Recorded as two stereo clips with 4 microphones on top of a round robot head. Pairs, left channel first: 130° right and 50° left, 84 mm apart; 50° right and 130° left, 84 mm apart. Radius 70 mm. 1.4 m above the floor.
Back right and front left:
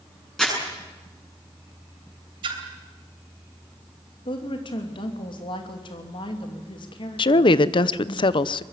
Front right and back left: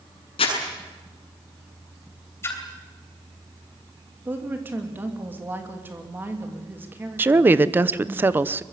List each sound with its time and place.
0.4 s crumpling: 45° right, 8 m
2.4 s a splash: 15° left, 3 m
4.2 s a woman speaking: 160° right, 3 m
7.2 s a woman speaking: 160° right, 0.8 m